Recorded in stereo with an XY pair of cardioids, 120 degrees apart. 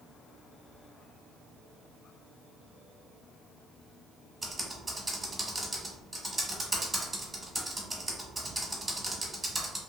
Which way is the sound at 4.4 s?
20° right.